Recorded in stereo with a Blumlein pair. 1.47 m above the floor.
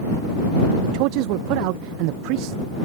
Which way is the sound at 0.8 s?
45° right.